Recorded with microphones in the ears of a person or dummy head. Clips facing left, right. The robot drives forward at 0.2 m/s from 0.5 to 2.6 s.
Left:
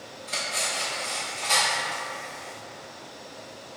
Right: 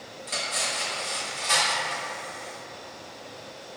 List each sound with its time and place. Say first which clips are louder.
0.3 s cutlery clinking: even; 45° right (ahead or behind), 1.2 m; by 2.0 s 35° right (ahead or behind), 1.4 m